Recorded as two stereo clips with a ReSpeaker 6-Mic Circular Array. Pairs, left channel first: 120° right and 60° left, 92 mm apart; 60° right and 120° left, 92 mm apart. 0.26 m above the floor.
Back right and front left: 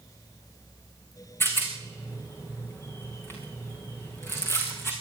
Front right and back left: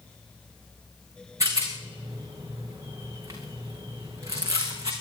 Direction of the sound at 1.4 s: 175° left.